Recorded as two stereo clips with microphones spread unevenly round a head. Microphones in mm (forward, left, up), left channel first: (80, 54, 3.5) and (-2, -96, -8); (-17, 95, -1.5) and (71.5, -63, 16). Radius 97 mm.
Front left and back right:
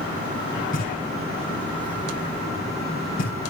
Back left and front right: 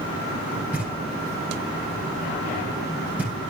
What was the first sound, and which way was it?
Knocking, 20° left.